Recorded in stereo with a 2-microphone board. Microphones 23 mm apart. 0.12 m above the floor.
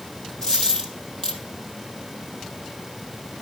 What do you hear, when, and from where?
0.4 s a dropped coin: 35° left (ahead or behind), 2.0 m